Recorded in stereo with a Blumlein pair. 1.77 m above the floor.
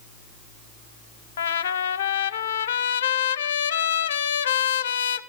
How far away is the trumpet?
About 0.7 m.